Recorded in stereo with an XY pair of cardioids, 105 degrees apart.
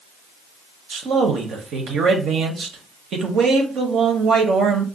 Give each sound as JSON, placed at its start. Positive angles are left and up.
{"t": 0.9, "sound": "a man speaking", "azimuth_deg": -65, "distance_m": 0.8}